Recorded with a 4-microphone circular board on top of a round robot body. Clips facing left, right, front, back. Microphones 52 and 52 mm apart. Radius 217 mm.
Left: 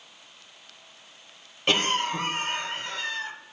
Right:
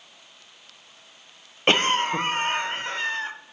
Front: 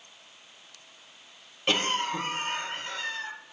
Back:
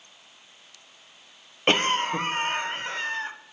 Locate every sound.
1.7 s a cough: 140° right, 0.7 m